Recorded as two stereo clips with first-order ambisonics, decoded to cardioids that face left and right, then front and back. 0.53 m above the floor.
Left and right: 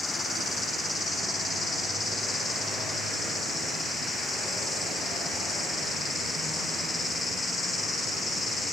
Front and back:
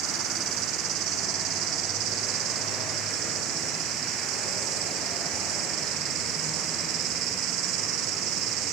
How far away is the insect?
About 3 m.